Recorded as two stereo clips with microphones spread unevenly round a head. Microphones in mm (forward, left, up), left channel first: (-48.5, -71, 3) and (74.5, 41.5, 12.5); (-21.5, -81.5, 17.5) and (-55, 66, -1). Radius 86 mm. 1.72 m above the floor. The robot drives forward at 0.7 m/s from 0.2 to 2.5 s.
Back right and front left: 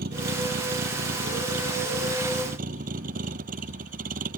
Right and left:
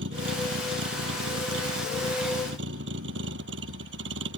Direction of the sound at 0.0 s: 85° left.